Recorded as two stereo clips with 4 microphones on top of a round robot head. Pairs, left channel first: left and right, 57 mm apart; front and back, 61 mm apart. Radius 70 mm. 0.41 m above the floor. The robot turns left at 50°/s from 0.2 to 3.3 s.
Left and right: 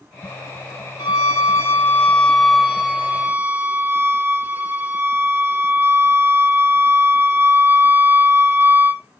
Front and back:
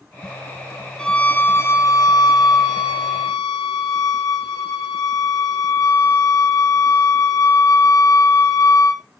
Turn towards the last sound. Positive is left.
turn(degrees=-35)